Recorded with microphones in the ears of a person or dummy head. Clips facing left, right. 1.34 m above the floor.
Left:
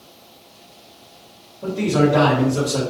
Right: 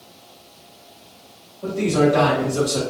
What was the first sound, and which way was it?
A man speaking, 50° left (ahead or behind).